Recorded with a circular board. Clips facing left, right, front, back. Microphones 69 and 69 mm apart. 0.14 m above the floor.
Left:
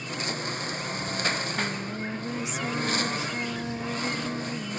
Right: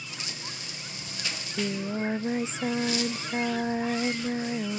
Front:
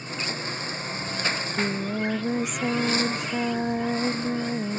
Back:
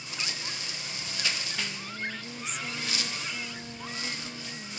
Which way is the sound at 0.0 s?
50° left.